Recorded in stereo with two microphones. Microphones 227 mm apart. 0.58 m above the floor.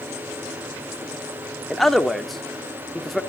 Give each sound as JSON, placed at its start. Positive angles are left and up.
{"t": 1.7, "sound": "a man speaking", "side_deg": 0, "distance_m": 1.1}